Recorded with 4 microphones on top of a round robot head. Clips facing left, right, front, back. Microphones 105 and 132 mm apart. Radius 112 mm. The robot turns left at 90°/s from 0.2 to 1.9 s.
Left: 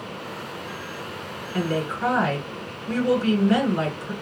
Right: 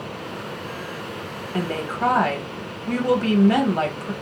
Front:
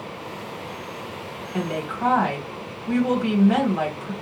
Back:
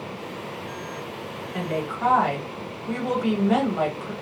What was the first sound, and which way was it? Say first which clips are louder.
A woman speaking: even, front 1 dB; 55° right.